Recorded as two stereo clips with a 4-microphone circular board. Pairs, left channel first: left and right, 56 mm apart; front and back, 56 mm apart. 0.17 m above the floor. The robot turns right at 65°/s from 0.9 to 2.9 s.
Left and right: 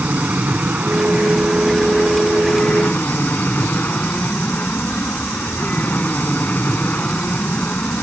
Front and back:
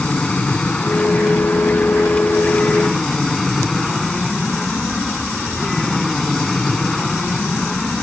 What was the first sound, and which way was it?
An aircraft, 55° right.